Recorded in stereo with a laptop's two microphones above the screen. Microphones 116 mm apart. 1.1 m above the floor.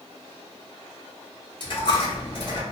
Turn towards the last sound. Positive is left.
turn(degrees=45)  # may be behind; listen again after turning